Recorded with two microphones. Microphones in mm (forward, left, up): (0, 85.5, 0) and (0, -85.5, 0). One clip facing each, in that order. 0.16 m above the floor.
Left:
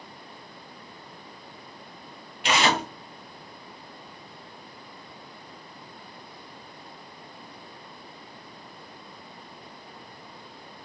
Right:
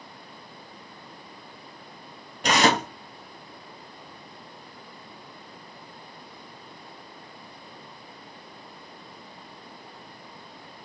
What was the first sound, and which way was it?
Tearing paper, 45° right (ahead or behind).